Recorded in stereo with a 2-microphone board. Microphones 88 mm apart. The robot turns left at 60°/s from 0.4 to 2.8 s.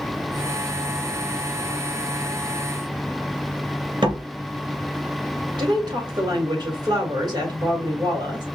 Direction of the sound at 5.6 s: 50° right (ahead or behind).